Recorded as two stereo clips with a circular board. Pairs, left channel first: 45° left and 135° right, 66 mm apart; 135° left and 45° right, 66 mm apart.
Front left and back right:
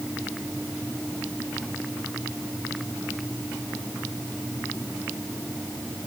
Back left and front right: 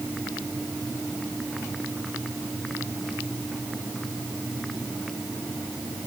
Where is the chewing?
I don't hear chewing.